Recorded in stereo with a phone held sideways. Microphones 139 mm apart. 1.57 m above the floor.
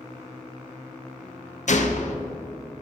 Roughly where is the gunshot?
Left.